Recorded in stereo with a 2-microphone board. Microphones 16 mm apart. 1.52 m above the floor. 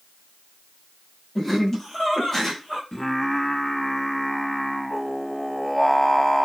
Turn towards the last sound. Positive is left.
turn(degrees=25)  # may be behind; listen again after turning